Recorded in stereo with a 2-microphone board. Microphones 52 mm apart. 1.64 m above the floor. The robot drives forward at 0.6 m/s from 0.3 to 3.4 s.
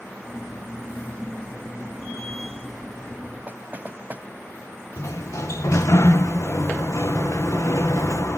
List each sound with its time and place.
3.5 s knocking: 35° right (ahead or behind)
5.0 s a sliding door: 70° left (ahead or behind)